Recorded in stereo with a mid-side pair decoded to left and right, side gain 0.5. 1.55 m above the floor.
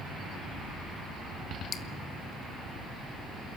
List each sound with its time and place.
1.7 s dripping: 50° left, 1.5 m